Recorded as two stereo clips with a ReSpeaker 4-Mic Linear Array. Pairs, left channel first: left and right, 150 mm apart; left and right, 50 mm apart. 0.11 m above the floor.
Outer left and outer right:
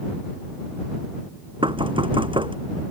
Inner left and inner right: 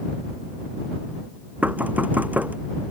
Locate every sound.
1.6 s knocking: 35° right (ahead or behind)